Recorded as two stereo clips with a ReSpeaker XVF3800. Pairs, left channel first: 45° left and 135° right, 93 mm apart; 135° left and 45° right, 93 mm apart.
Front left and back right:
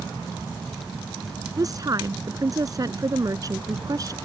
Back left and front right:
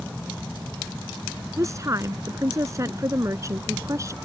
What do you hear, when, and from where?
1.6 s a woman speaking: 95° right